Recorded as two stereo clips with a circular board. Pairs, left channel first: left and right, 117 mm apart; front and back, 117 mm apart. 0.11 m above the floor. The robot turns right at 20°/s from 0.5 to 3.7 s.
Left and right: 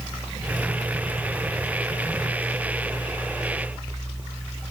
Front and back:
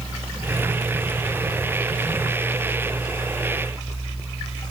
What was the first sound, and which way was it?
Only background noise.